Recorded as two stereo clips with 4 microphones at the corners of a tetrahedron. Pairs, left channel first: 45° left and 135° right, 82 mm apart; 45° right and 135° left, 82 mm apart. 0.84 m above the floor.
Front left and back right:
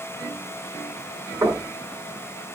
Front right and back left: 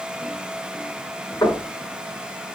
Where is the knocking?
90° right, 5.5 m.